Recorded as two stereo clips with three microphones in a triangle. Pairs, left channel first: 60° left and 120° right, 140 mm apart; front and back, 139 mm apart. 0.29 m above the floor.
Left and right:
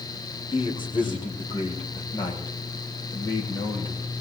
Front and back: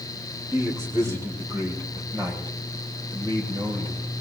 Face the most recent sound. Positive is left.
turn(degrees=125)